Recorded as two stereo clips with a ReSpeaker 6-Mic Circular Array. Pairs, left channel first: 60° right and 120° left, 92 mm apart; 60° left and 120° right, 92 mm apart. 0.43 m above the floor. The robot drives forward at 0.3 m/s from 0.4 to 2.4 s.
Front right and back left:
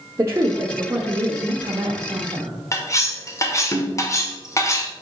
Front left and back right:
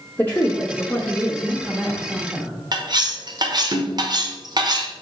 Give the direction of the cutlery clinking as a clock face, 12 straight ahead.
3 o'clock.